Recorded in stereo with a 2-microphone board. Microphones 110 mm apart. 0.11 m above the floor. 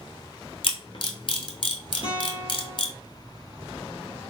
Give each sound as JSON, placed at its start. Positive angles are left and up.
{"t": 0.6, "sound": "a camera shutter", "side_deg": 50, "distance_m": 0.8}
{"t": 2.0, "sound": "a guitar", "side_deg": 50, "distance_m": 2.5}